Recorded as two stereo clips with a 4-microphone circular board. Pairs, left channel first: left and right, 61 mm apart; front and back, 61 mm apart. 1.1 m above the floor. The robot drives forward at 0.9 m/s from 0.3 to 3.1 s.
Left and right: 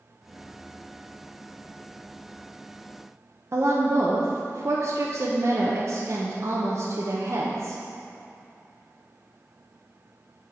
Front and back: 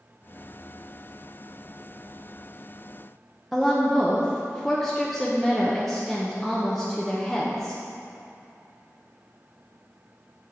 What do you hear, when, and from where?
3.5 s a woman speaking: 85° right, 0.8 m